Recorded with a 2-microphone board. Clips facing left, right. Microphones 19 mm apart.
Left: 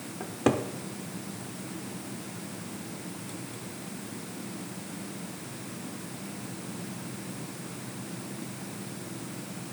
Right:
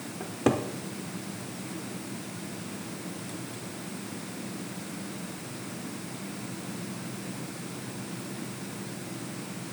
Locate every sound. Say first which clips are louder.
0.2 s a cupboard door: even; 5° left (ahead or behind), 0.7 m